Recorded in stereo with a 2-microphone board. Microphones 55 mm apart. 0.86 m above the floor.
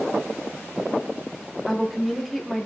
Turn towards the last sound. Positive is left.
turn(degrees=0)  # may be behind; listen again after turning